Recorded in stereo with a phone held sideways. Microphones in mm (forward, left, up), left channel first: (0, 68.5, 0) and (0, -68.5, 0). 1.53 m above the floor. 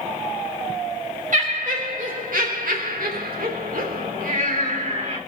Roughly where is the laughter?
Right.